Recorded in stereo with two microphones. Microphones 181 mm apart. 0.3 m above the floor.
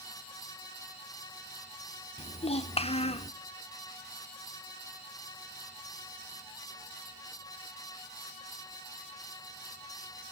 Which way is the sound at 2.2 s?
35° left (ahead or behind).